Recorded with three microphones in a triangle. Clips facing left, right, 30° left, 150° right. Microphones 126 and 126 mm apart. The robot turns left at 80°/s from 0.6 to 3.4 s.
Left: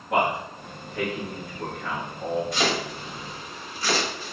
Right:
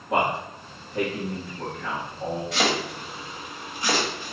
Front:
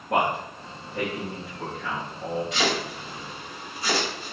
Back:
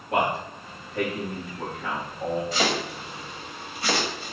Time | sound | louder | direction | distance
0.1 | a man speaking | even, front 1 dB | 10° right | 1.5 m
2.5 | chopping | right 1 dB, even | 90° right | 1.8 m